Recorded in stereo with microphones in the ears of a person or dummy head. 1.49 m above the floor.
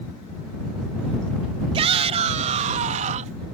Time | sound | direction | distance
1.7 | a shout | 30° right (ahead or behind) | ?